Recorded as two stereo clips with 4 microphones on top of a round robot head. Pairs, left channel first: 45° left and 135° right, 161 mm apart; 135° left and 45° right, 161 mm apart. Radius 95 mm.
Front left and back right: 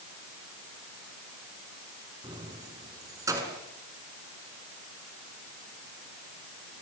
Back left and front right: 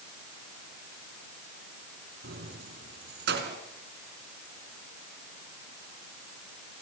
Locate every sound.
2.2 s keys jangling: 70° right, 5 m; by 3.6 s 60° right, 5.5 m